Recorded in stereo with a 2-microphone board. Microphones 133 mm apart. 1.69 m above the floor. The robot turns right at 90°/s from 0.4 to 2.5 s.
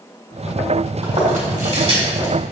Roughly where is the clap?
No clap in this recording.